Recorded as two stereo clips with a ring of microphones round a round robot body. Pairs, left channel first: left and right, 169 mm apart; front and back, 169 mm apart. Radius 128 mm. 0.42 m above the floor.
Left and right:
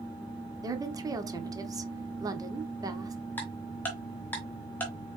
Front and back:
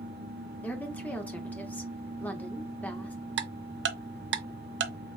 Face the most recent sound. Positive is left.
turn(degrees=170)